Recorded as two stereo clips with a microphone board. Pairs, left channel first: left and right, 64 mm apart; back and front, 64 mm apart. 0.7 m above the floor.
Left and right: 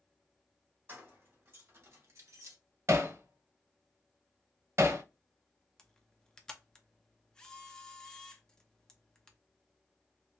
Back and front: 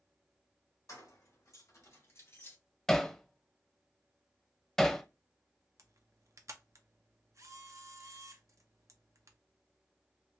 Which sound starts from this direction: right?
Hammering, at 2.9 s.